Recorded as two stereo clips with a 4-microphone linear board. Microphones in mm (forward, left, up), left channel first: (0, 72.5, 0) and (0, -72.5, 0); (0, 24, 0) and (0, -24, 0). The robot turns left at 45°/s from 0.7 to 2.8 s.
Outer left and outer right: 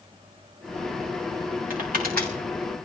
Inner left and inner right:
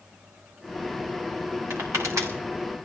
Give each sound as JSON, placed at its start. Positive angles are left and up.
{"t": 1.7, "sound": "crushing", "side_deg": -75, "distance_m": 5.5}